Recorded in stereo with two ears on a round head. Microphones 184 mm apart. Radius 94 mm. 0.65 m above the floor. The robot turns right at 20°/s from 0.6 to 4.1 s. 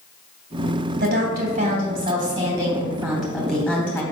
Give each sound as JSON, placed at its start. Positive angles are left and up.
{"t": 1.0, "sound": "a woman speaking", "azimuth_deg": -50, "distance_m": 3.0}